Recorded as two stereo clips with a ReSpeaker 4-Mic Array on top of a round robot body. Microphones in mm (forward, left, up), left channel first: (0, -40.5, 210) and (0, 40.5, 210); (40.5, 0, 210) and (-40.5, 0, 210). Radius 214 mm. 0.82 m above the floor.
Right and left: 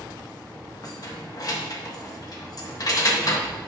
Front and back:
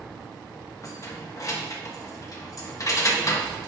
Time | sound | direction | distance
0.8 | keys jangling | 50° right | 1.2 m